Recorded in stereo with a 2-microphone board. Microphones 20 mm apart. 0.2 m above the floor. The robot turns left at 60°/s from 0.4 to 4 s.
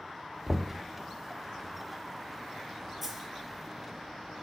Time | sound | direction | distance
0.5 | knocking | 30° right (ahead or behind) | 0.9 m
3.0 | a dropped coin | 5° right (ahead or behind) | 2.5 m